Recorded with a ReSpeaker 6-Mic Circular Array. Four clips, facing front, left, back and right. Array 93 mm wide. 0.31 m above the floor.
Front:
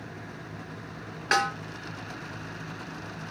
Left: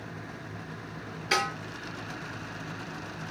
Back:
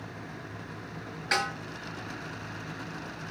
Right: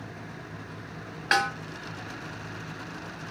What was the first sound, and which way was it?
A snare drum, 55° right.